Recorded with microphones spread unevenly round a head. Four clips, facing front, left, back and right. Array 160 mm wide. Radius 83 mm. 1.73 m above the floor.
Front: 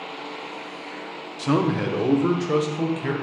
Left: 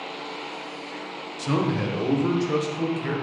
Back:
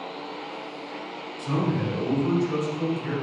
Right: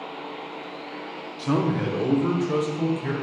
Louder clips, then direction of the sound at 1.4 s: Right 1 dB, front 5 dB; 10° left.